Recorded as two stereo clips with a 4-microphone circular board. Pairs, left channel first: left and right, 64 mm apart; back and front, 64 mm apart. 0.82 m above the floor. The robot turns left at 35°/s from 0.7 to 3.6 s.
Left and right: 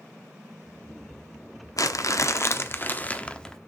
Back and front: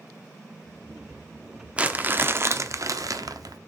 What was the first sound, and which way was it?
Crumpling, 70° left.